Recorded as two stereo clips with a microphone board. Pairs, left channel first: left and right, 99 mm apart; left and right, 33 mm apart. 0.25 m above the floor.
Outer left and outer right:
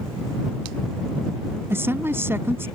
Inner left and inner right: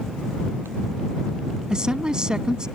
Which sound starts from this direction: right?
A woman speaking, at 1.7 s.